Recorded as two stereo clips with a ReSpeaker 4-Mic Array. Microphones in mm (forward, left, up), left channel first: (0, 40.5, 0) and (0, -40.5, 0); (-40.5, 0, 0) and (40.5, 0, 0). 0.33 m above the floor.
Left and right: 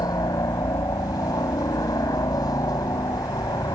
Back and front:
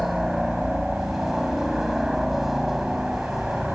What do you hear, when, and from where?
0.0 s a helicopter: 85° left